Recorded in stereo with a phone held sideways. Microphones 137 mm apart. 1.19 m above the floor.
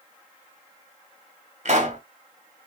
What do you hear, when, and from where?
1.6 s a pop: 60° right (ahead or behind), 2 m